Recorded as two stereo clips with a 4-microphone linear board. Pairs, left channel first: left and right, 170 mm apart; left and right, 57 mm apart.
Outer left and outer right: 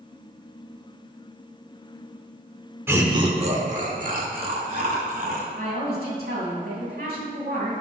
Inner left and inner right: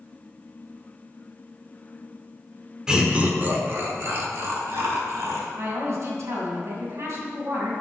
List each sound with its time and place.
2.9 s laughter: 10° right (ahead or behind), 1.2 m; by 5.5 s 60° right (ahead or behind), 3 m
5.6 s a woman speaking: 65° right (ahead or behind), 3 m